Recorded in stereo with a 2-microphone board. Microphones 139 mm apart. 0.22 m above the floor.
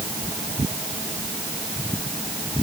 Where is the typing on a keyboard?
I don't hear typing on a keyboard.